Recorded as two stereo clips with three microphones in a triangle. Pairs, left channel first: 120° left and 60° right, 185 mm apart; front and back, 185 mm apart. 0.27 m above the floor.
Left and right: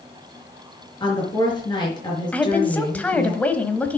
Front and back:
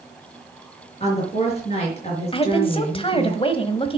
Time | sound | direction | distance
1.0 | a woman speaking | 55° left | 5.5 m
2.3 | a woman speaking | 40° left | 1.2 m